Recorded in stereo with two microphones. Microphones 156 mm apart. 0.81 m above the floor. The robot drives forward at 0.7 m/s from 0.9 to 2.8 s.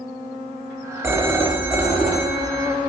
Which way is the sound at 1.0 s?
15° right (ahead or behind).